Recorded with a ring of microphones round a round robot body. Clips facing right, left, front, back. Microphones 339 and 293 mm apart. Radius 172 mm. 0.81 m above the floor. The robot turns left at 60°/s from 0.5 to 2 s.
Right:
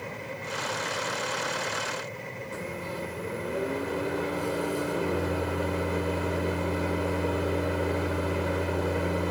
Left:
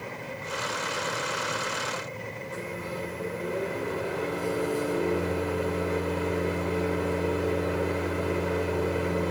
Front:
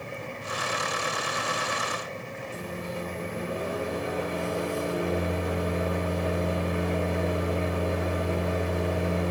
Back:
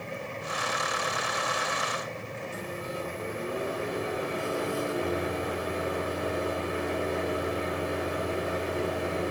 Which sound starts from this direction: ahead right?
A microwave, at 2.5 s.